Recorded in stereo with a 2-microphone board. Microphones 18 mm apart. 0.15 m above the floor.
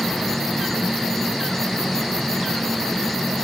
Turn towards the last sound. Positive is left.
turn(degrees=15)  # may be behind; listen again after turning